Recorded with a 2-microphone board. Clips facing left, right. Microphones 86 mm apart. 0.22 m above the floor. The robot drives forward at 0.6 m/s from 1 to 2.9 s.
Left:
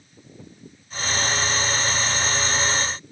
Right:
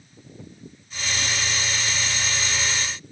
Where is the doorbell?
I don't hear a doorbell.